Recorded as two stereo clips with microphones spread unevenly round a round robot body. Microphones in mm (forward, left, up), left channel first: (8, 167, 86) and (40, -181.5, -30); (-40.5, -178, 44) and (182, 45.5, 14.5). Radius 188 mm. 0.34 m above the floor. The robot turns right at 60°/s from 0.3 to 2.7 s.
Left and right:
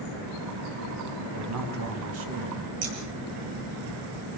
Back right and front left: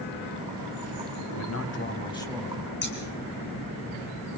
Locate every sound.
1.3 s a man speaking: 110° right, 3 m; by 2.7 s 30° right, 3 m
2.8 s scissors: 80° right, 6 m